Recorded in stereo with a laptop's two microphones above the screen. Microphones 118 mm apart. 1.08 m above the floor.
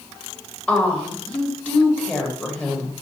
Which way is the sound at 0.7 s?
10° left (ahead or behind).